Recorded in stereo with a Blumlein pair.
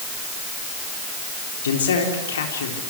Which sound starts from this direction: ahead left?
A man speaking, at 1.6 s.